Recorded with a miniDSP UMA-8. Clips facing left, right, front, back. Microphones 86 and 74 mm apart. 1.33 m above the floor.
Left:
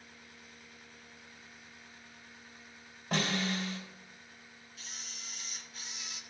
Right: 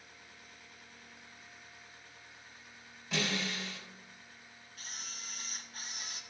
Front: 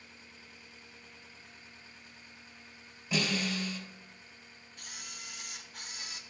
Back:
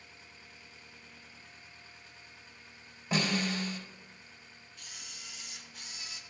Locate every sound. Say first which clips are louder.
3.1 s a snare drum: left 3 dB, back 1 dB; 135° left, 3.5 m
4.8 s a camera shutter: right 2 dB, front 4 dB; 40° right, 0.9 m